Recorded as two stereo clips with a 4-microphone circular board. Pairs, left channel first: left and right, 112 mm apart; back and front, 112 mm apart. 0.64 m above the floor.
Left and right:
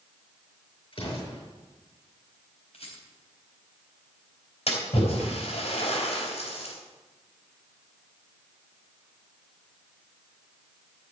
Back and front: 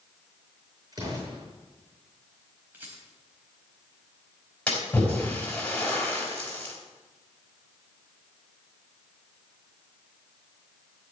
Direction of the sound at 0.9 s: 55° left.